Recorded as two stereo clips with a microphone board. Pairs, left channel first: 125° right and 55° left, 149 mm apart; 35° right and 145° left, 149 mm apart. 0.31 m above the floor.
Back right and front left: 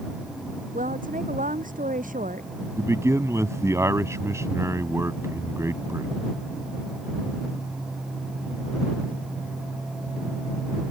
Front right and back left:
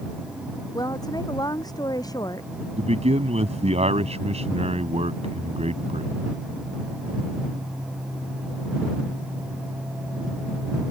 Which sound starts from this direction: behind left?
A man speaking, at 2.8 s.